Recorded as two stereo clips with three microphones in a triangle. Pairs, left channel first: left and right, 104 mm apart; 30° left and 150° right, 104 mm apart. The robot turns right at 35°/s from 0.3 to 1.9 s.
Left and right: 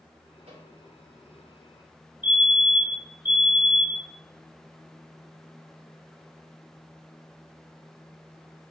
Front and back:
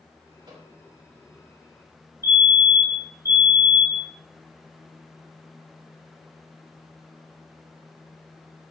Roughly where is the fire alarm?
Behind right.